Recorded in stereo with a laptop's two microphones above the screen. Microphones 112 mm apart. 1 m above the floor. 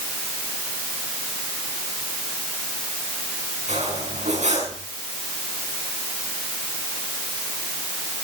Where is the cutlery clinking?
90° right, 6.5 m.